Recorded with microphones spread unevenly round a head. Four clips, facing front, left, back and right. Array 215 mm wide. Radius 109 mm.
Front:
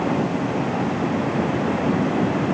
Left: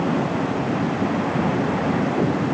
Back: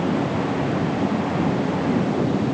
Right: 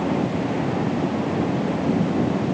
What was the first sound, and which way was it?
Only background noise.